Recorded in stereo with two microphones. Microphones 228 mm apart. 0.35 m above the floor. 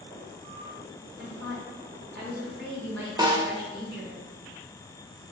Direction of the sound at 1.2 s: 60° right (ahead or behind).